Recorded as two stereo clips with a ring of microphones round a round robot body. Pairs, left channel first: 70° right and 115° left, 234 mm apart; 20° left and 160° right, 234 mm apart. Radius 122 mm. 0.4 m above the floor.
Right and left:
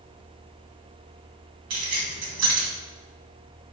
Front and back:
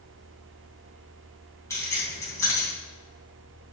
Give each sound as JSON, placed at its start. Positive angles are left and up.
{"t": 1.7, "sound": "keys jangling", "azimuth_deg": 100, "distance_m": 2.5}